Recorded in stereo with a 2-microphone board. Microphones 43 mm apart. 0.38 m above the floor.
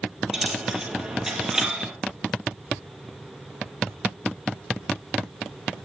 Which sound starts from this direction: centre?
A dropped coin, at 0.3 s.